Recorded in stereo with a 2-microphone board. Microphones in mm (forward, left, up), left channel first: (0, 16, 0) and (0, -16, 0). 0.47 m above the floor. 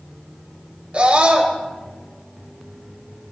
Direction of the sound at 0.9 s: 45° right (ahead or behind).